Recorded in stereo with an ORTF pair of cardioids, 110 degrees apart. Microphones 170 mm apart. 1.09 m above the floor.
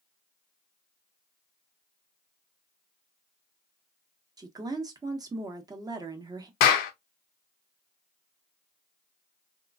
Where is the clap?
65° left, 0.6 m.